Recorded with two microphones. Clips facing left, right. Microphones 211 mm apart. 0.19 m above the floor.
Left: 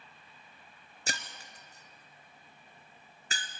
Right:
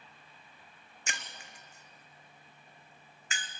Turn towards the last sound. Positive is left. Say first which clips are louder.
# left 4 dB
turn(degrees=35)  # may be behind; listen again after turning